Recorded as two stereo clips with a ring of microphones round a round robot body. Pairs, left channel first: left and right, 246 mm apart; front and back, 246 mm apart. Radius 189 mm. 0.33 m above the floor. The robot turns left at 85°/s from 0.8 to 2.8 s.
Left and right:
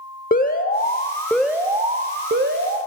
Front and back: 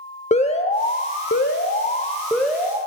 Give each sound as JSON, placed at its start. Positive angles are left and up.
{"t": 0.3, "sound": "an alarm", "azimuth_deg": 50, "distance_m": 0.9}